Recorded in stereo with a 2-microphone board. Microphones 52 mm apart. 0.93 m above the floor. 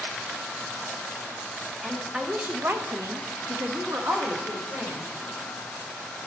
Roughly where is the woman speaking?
Centre.